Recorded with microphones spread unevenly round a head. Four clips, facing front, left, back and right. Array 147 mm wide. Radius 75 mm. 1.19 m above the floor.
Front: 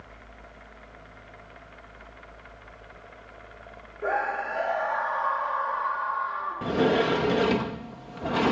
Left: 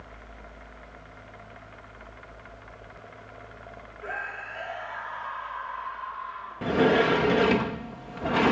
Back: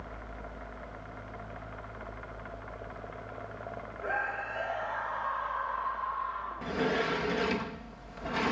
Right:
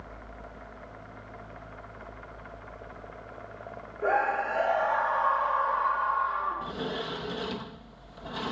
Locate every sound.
4.0 s a scream: 60° right
6.6 s a sliding door: 50° left